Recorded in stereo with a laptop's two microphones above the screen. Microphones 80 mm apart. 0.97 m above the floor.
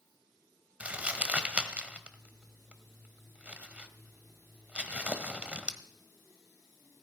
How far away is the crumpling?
About 1.5 m.